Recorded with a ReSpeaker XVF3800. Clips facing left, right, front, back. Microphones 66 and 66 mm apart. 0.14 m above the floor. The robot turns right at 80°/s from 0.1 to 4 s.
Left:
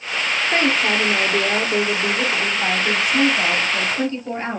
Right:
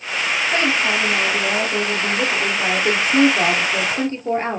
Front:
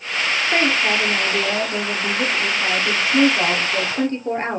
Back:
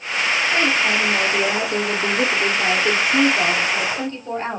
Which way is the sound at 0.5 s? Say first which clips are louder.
Left 1 dB, front 2 dB; 40° left.